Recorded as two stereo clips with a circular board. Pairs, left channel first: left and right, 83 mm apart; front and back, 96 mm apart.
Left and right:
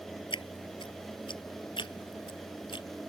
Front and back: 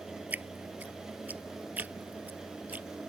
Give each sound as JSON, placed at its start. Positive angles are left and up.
{"t": 0.3, "sound": "dripping", "azimuth_deg": 105}